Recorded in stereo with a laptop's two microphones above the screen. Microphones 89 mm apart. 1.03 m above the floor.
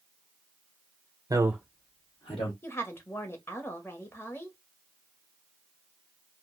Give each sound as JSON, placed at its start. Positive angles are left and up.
{"t": 1.3, "sound": "a man speaking", "side_deg": -45, "distance_m": 0.7}
{"t": 2.6, "sound": "a woman speaking", "side_deg": 25, "distance_m": 1.0}